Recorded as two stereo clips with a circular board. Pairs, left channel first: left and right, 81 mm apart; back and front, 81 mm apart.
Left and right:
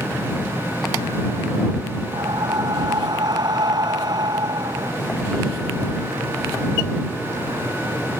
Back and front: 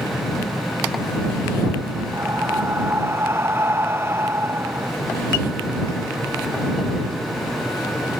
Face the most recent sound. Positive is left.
turn(degrees=-60)